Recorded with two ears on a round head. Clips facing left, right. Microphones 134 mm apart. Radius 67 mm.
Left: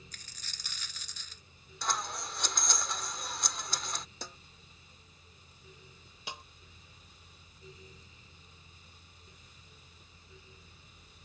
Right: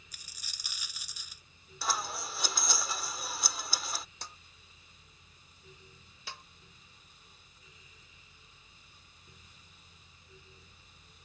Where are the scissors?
5° right (ahead or behind).